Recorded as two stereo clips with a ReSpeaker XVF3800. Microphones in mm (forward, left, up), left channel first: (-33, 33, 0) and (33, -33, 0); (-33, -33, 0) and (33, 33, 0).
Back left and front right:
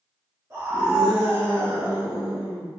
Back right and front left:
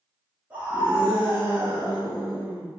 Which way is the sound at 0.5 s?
10° right.